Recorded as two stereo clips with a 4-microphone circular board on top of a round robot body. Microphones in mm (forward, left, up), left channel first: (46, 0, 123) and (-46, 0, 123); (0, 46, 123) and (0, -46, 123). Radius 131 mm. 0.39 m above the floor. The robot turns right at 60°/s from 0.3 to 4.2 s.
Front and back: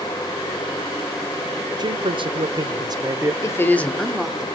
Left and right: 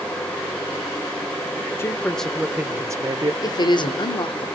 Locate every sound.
1.8 s a man speaking: 150° left, 2 m; by 3.3 s 120° right, 2 m
3.4 s a woman speaking: 50° left, 1.7 m; by 4.5 s 100° left, 1.7 m